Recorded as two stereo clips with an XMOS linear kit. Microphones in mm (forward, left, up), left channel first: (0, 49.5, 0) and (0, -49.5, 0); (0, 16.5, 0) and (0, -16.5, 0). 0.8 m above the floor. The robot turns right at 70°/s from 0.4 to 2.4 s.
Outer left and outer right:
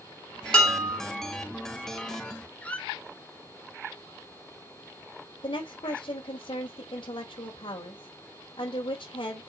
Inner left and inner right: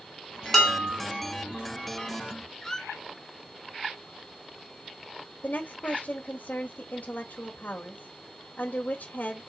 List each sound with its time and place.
0.5 s dishes clattering: 175° left, 3 m; by 1.0 s 155° right, 3 m
2.6 s a squeak: 15° left (ahead or behind), 1.2 m
5.4 s a woman speaking: 65° left (ahead or behind), 2.5 m